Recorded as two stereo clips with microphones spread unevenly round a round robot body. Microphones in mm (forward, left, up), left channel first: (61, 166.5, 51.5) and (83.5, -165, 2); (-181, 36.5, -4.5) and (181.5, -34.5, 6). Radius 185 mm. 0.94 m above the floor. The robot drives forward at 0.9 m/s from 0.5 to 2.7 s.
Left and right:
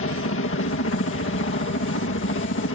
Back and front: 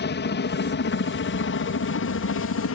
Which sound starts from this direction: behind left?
A helicopter, at 0.0 s.